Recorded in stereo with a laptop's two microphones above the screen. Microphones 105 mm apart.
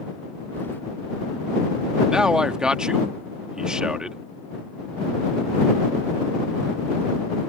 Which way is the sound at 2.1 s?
10° right (ahead or behind).